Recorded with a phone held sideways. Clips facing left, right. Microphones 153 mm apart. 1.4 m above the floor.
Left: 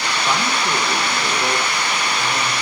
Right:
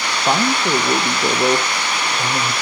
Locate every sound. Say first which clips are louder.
0.3 s a man speaking: right 5 dB; 35° right (ahead or behind), 0.8 m